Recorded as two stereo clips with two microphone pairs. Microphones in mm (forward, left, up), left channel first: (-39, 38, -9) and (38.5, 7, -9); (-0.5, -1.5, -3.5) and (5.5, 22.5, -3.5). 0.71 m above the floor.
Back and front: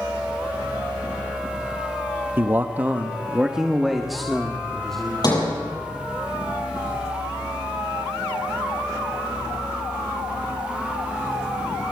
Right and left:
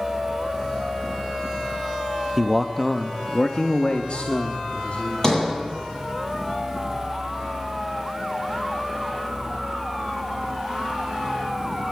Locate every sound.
2.4 s a man speaking: 10° left, 1.1 m; by 5.5 s 120° right, 2.5 m
5.2 s a sliding door: 170° right, 8.5 m